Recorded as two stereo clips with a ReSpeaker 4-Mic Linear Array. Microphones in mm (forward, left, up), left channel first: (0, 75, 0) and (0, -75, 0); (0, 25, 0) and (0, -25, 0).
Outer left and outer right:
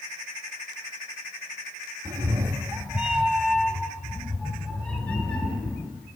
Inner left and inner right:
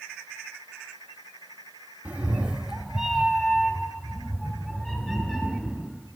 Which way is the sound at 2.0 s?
25° right (ahead or behind).